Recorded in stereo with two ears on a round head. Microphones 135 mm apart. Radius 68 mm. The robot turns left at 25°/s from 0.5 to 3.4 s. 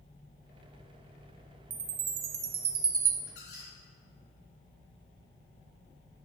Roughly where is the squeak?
Left.